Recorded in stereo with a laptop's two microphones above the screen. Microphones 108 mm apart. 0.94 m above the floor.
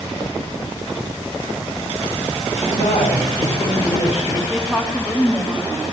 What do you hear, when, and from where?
2.6 s a woman speaking: 70° left (ahead or behind), 3 m
4.5 s a woman speaking: 5° left (ahead or behind), 1.6 m